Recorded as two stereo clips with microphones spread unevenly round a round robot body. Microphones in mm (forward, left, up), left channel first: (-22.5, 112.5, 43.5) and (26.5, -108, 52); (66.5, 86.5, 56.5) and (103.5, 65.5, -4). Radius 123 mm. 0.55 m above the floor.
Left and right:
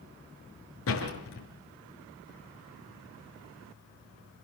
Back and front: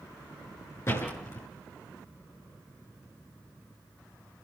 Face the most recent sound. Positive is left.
turn(degrees=130)